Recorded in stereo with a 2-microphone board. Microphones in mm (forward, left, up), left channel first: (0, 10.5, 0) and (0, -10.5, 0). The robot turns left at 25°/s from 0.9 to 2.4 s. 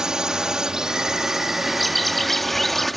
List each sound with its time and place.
0.0 s a drone: 35° right (ahead or behind); by 3.0 s 5° left (ahead or behind)
1.7 s a bird: centre (ahead or behind); by 2.9 s 15° left (ahead or behind)